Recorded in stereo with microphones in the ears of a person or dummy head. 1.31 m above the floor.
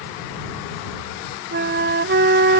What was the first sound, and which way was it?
A flute, 45° right (ahead or behind).